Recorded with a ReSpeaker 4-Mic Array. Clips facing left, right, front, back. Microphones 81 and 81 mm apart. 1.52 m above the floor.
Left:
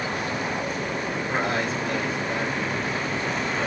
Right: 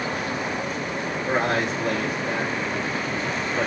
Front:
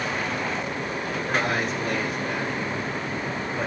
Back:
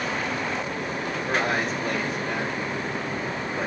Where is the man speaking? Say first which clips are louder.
Right 4 dB, even; 90° right, 6.5 m.